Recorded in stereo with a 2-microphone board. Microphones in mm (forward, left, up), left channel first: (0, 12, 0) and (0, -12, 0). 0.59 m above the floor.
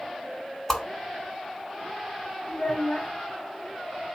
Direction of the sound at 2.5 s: 40° left (ahead or behind).